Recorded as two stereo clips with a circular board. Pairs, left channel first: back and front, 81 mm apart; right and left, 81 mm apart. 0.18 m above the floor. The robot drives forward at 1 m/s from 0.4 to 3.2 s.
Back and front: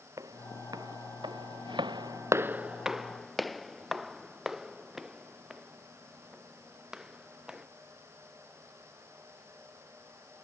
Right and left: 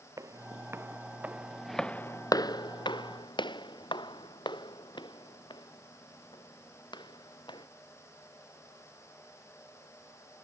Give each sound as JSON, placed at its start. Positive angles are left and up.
{"t": 0.2, "sound": "footsteps", "azimuth_deg": 45}